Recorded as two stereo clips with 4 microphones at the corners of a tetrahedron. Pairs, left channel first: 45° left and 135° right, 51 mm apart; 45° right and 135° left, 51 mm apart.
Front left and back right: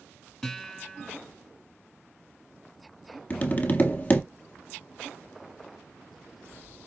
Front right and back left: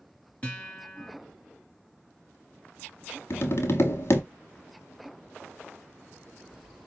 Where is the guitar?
30° right, 1.6 m.